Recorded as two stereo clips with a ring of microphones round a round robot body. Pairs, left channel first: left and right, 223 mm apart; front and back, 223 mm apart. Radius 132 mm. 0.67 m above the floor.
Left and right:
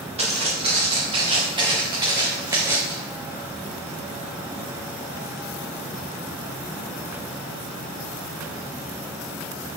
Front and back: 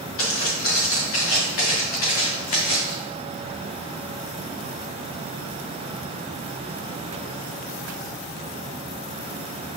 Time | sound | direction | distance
0.2 | footsteps | 25° right | 4.5 m